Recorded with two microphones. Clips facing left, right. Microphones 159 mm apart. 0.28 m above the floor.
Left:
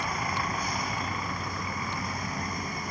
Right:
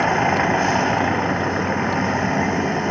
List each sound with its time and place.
0.0 s a vehicle: 75° right (ahead or behind)